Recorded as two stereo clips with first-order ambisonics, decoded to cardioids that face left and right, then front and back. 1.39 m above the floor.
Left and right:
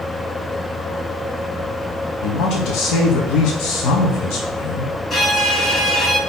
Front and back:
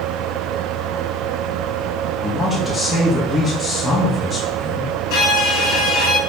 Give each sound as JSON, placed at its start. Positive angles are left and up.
{"t": 2.2, "sound": "a woman speaking", "azimuth_deg": 80, "distance_m": 0.7}
{"t": 5.1, "sound": "a violin", "azimuth_deg": 15, "distance_m": 1.5}